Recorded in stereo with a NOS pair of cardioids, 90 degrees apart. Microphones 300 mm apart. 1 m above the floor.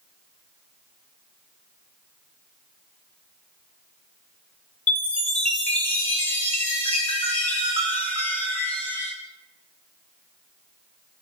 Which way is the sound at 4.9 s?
5° left.